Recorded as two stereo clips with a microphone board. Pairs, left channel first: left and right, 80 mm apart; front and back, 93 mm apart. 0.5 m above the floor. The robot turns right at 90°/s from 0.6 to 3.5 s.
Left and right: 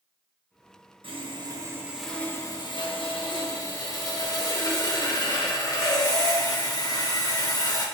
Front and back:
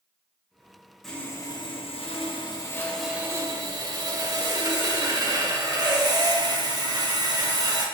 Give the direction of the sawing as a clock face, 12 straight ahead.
3 o'clock.